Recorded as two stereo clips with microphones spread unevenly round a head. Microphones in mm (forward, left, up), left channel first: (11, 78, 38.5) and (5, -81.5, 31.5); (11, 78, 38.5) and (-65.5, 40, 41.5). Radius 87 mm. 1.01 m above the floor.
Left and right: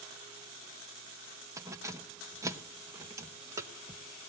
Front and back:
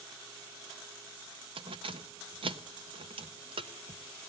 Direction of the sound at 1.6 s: 165° right.